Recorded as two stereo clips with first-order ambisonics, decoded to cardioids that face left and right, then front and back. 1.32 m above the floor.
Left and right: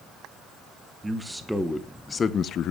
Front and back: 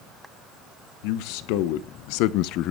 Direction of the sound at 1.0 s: 5° right.